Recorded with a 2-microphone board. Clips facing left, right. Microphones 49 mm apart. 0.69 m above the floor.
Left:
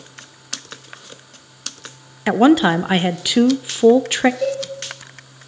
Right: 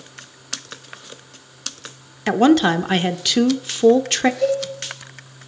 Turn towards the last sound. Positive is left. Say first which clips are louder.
# right 2 dB
turn(degrees=20)  # may be behind; listen again after turning